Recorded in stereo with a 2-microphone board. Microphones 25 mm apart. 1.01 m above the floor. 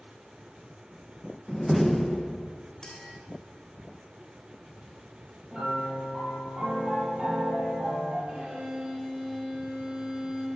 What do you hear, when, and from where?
1.5 s a door slam: 5° left (ahead or behind), 0.5 m
2.8 s a clink: 25° left (ahead or behind), 3.5 m
5.5 s a piano: 30° right (ahead or behind), 5 m
8.3 s a violin: 35° right (ahead or behind), 6 m